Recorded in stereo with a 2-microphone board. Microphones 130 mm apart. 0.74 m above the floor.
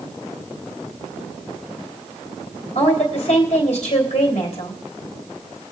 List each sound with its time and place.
2.8 s a woman speaking: 55° left (ahead or behind), 3.5 m